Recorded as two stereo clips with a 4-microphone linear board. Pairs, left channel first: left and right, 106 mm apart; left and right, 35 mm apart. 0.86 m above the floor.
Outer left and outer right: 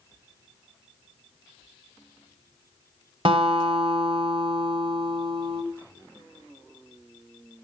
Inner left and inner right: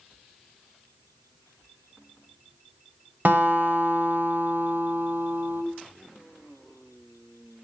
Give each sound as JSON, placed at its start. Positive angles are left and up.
{"t": 3.2, "sound": "a guitar", "side_deg": -55, "distance_m": 1.6}